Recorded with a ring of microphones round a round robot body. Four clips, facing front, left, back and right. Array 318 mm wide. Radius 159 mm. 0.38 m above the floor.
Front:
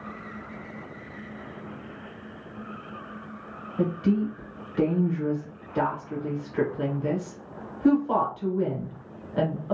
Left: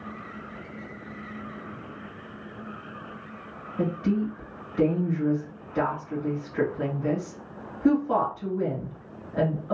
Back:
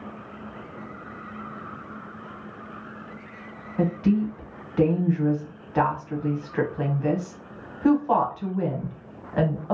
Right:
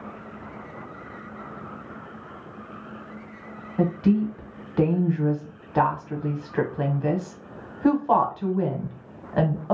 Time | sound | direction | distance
3.8 | a woman speaking | 110° right | 1.0 m